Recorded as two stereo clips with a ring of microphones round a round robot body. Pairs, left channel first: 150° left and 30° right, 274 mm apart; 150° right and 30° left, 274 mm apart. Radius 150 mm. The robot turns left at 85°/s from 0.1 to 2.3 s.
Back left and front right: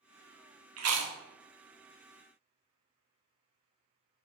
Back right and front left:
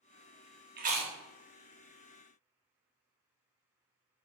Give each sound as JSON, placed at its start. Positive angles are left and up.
{"t": 0.8, "sound": "chewing", "azimuth_deg": -15, "distance_m": 0.5}